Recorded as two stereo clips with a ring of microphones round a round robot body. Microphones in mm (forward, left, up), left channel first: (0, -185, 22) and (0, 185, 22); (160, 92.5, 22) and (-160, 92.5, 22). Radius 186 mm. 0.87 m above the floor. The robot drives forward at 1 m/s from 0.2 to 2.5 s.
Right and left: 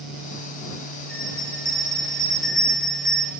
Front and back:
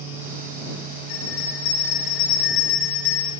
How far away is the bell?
About 9.5 m.